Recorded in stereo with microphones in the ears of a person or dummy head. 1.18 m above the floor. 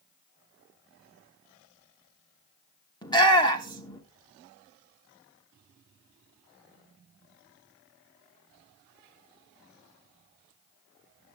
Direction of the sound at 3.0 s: 25° left (ahead or behind).